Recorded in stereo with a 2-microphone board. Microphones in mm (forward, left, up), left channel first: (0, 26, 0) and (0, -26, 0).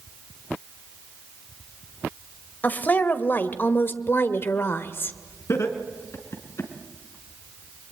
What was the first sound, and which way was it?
A woman speaking, 35° left (ahead or behind).